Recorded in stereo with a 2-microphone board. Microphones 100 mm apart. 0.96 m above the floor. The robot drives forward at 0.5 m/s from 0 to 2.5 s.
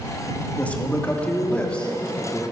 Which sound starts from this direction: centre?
A man speaking, at 0.6 s.